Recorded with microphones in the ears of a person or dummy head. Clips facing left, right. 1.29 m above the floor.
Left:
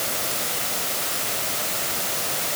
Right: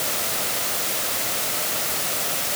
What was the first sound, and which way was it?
Only background noise.